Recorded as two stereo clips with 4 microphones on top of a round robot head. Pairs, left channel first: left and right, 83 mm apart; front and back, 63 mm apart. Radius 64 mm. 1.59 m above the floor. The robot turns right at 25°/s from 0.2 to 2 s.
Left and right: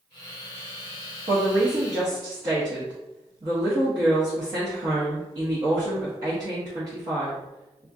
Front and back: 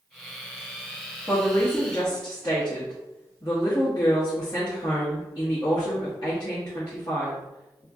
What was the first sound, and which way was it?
A woman speaking, 75° right.